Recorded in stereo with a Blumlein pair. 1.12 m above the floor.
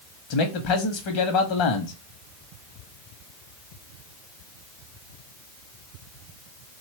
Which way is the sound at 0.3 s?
45° left.